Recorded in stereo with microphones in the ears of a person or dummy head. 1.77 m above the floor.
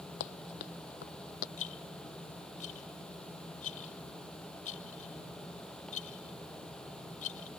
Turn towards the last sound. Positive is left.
turn(degrees=55)  # may be behind; listen again after turning